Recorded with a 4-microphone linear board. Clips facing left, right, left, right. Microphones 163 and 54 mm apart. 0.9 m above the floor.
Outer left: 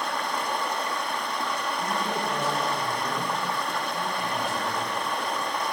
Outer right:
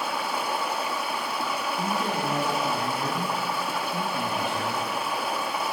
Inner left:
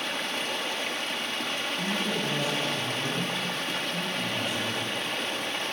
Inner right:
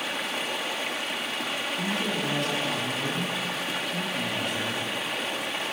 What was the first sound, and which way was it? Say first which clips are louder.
Running water: even, inner right 1 dB; 5° right (ahead or behind).